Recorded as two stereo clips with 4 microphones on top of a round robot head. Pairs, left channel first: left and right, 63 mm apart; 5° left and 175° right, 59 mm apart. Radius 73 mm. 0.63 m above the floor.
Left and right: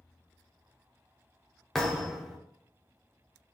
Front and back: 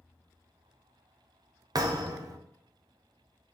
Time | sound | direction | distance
1.8 | a thud | 175° left | 0.8 m